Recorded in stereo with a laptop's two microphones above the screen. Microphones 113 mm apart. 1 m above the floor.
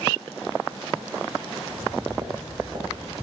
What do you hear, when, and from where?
1.7 s footsteps: 40° right (ahead or behind), 2.5 m; by 3.1 s 45° right (ahead or behind), 3.5 m